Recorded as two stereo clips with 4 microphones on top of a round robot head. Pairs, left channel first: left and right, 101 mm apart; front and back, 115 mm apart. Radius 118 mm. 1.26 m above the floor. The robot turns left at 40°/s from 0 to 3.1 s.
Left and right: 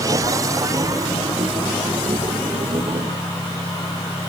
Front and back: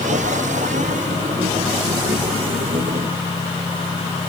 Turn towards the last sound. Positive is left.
No sound to turn to.